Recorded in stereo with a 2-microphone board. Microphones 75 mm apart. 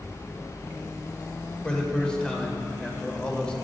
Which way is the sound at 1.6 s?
10° left (ahead or behind).